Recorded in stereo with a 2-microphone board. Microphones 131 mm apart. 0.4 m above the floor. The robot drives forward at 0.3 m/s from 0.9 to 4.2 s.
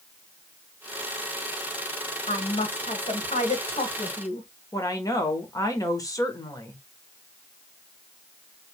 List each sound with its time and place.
2.3 s a woman speaking: 60° left (ahead or behind), 1.7 m
4.7 s a woman speaking: 25° left (ahead or behind), 1.3 m